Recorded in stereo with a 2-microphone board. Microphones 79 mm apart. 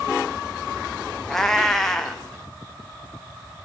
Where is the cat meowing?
5° left (ahead or behind), 2.5 m.